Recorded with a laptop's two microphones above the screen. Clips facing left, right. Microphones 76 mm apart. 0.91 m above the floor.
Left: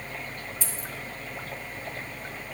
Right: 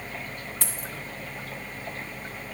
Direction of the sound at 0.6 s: 65° right (ahead or behind).